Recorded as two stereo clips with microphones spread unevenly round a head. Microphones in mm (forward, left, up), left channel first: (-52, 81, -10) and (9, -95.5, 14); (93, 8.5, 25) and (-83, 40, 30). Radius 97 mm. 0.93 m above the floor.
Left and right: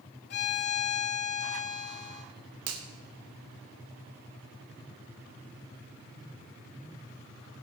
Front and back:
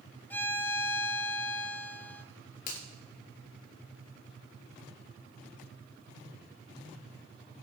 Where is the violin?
70° left, 1.3 m.